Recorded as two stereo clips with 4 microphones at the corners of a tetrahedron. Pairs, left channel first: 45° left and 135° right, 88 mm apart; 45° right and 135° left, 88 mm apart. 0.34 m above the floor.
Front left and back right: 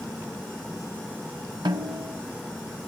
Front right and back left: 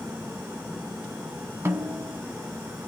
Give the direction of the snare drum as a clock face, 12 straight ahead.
5 o'clock.